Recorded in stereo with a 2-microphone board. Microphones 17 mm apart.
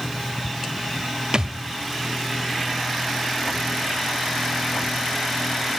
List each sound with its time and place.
1.3 s a thud: 45° right (ahead or behind), 1.1 m